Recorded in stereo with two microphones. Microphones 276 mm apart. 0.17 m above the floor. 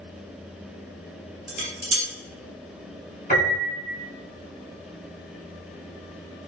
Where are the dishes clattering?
45° right (ahead or behind), 1.1 m.